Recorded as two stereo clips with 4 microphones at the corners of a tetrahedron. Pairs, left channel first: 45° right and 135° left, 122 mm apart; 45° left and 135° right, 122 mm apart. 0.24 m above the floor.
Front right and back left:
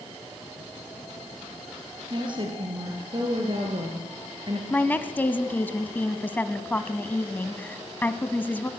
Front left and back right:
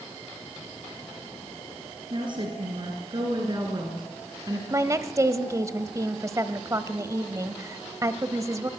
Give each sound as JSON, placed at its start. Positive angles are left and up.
{"t": 2.1, "sound": "a woman speaking", "azimuth_deg": 180, "distance_m": 4.0}
{"t": 4.7, "sound": "a woman speaking", "azimuth_deg": -105, "distance_m": 1.1}